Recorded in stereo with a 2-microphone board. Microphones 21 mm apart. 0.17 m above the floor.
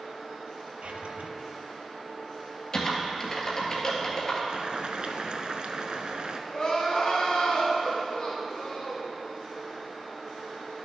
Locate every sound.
0.8 s a drawer: 75° right (ahead or behind), 1.0 m
2.7 s typing on a keyboard: 30° left (ahead or behind), 1.7 m
4.5 s boiling: 50° right (ahead or behind), 0.7 m
6.5 s crying: 35° left (ahead or behind), 2 m